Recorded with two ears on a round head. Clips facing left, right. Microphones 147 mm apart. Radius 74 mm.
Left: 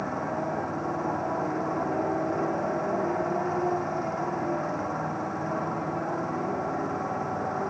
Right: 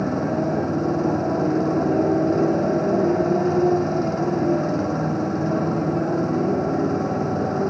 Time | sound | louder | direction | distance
0.0 | a motorcycle | right 8 dB | 40° right (ahead or behind) | ?